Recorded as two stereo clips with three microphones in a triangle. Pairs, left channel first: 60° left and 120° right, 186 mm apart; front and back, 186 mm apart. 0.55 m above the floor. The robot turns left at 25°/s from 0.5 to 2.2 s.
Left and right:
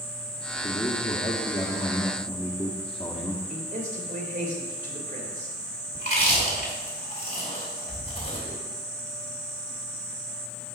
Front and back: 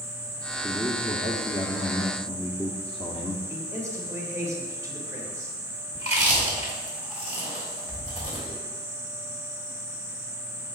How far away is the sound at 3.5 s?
About 2.5 m.